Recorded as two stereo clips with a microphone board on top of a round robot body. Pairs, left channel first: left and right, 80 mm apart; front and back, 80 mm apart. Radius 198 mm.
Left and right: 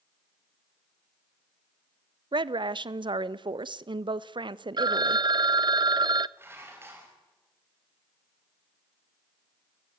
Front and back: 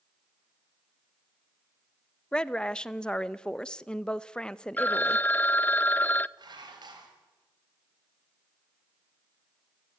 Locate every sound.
2.3 s a woman speaking: 80° right, 0.8 m
4.8 s a phone ringing: 65° right, 0.6 m
6.4 s dishes clattering: 150° right, 3.5 m